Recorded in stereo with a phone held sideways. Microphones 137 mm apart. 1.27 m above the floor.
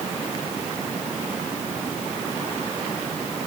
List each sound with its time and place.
Only background noise.